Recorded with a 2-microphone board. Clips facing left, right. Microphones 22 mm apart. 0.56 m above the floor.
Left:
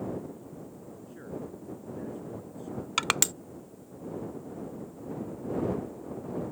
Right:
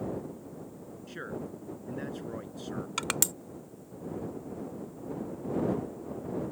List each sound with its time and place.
1.1 s a man speaking: 65° right (ahead or behind)
3.0 s crushing: 25° left (ahead or behind)